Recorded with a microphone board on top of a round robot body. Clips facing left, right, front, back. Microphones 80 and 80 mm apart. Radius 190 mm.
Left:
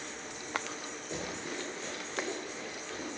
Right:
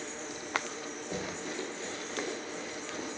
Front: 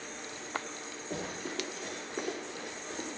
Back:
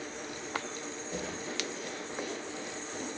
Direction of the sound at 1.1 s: 40° right.